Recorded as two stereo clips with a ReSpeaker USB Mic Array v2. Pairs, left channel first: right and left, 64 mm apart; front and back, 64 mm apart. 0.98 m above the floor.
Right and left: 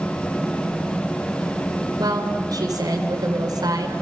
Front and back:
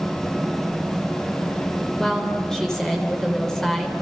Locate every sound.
2.0 s a woman speaking: 80° left, 3 m